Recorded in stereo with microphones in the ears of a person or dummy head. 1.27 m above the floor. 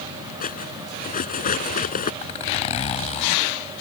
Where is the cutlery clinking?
40° left (ahead or behind).